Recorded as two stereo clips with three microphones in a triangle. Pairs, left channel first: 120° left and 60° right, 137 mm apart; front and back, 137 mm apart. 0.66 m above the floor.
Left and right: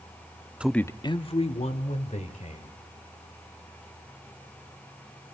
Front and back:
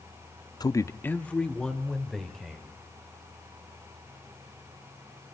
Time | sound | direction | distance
0.6 | a man speaking | 10° left | 0.7 m